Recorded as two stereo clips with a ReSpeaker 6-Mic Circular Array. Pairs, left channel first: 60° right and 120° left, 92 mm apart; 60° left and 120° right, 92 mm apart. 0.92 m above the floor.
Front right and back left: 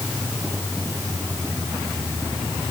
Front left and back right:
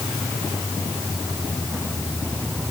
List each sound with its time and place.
Only background noise.